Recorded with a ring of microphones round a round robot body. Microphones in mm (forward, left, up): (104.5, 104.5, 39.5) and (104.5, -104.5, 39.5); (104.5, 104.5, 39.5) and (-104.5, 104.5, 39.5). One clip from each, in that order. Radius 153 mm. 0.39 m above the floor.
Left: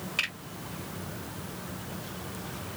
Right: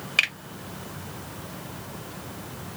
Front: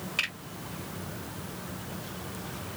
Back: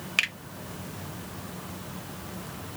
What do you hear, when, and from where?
0.2 s a finger snap: 140° right, 1.5 m